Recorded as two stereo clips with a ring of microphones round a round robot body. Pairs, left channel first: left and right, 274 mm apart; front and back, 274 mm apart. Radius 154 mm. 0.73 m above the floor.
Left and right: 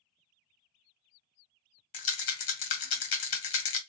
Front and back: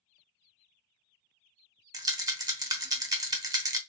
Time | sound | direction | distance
1.9 | a rattle | 105° left | 1.0 m